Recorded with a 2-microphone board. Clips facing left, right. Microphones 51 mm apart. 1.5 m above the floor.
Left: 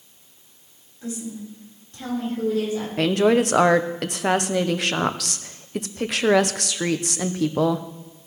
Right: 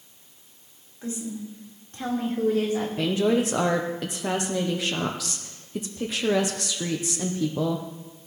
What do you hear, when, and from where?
1.0 s a woman speaking: 35° right (ahead or behind), 4.5 m; by 2.9 s 50° right (ahead or behind), 3 m
3.0 s a woman speaking: 60° left (ahead or behind), 0.7 m